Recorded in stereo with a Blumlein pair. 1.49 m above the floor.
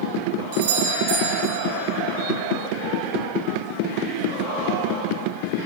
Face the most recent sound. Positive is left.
turn(degrees=-55)